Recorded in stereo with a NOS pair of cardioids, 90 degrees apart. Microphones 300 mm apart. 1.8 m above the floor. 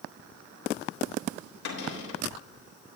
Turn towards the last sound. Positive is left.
turn(degrees=65)